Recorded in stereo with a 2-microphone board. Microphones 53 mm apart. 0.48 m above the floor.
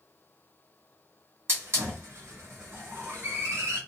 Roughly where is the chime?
I don't hear a chime.